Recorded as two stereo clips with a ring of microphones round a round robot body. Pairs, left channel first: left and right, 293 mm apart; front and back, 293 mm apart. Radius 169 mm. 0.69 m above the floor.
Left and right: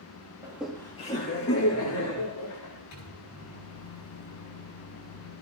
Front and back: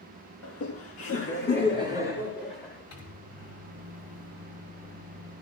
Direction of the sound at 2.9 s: 40° left.